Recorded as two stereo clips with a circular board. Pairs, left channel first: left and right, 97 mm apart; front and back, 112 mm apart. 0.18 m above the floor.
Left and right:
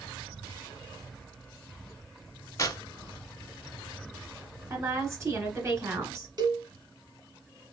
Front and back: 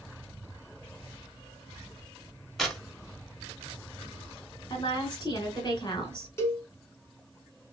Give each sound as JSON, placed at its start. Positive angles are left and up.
{"t": 2.6, "sound": "tearing paper", "azimuth_deg": 85, "distance_m": 0.9}
{"t": 4.7, "sound": "a woman speaking", "azimuth_deg": -35, "distance_m": 1.9}
{"t": 6.4, "sound": "a cowbell", "azimuth_deg": -60, "distance_m": 1.1}